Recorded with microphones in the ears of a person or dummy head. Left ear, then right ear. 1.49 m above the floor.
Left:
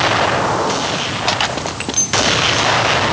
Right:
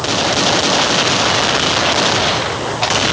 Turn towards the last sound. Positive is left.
No sound to turn to.